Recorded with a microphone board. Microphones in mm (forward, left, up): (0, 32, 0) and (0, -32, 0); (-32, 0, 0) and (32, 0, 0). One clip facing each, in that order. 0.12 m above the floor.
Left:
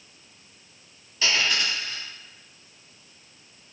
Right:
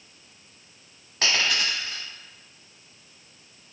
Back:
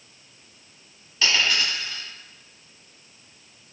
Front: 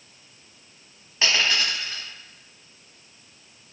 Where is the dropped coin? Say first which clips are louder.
Even, even; 60° right, 1.2 m.